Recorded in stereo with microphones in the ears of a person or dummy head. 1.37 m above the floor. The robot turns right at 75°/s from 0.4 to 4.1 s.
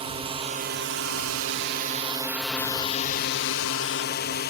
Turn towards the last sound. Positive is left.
turn(degrees=125)